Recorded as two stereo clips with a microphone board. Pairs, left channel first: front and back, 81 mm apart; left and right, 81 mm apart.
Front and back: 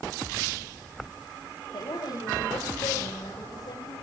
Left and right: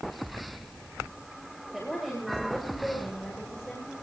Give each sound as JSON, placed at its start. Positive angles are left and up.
{"t": 1.7, "sound": "a woman speaking", "azimuth_deg": 0, "distance_m": 7.5}